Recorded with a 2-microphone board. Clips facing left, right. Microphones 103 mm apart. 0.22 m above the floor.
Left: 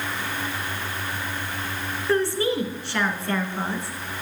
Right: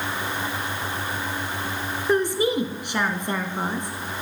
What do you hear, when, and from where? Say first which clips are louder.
2.1 s a woman speaking: right 1 dB; 15° right (ahead or behind), 2.5 m